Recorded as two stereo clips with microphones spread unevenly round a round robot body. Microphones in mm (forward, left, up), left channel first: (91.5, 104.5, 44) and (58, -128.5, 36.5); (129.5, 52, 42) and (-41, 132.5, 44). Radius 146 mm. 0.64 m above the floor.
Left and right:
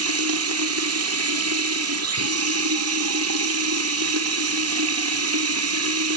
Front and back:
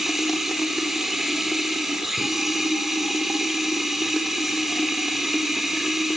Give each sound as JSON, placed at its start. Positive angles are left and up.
{"t": 0.0, "sound": "running water", "azimuth_deg": -115, "distance_m": 1.3}